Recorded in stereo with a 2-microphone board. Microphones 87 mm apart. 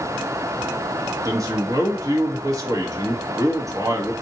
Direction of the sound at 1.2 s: 40° right (ahead or behind).